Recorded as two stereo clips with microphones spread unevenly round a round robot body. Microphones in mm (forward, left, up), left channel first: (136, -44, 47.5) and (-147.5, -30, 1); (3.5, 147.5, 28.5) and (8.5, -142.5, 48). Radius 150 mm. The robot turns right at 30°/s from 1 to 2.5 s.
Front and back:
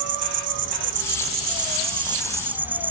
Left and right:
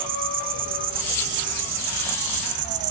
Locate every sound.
0.0 s an insect: 135° right, 1.1 m; by 2.9 s 90° right, 1.1 m